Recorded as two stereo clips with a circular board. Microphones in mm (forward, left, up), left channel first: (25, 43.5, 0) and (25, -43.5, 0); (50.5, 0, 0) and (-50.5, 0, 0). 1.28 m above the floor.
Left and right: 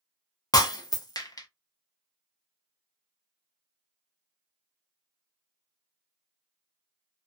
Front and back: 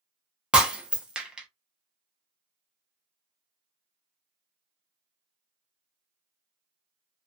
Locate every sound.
0.5 s breaking glass: 105° left, 0.7 m